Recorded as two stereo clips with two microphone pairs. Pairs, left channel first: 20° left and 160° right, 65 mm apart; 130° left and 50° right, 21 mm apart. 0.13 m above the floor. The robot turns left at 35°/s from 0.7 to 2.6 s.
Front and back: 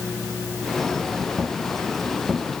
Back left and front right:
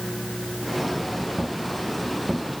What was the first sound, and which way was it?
Only background noise.